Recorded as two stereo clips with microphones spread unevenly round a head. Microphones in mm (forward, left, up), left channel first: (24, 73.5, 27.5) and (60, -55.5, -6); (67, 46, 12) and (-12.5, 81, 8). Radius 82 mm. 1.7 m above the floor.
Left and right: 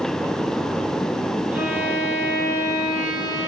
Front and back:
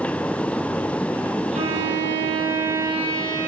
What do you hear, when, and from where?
1.5 s a violin: 160° right, 7.5 m